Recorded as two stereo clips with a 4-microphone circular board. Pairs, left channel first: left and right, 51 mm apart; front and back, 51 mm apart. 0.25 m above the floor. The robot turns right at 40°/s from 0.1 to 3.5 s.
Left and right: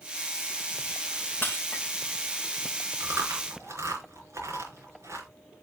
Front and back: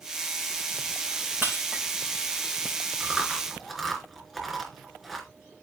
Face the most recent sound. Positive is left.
turn(degrees=-90)